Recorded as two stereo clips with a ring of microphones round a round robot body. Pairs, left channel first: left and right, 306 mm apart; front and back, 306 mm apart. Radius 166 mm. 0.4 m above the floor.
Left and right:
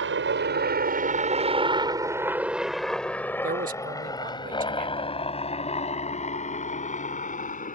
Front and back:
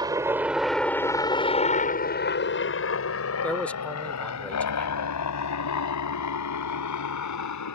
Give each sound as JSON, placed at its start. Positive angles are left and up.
{"t": 0.0, "sound": "a helicopter", "azimuth_deg": -110}
{"t": 3.4, "sound": "a man speaking", "azimuth_deg": -80}